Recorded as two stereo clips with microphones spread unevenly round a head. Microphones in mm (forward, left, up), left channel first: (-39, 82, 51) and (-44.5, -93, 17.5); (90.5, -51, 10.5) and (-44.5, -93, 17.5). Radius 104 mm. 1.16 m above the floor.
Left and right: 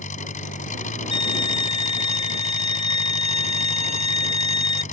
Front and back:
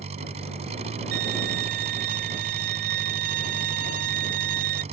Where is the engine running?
135° left.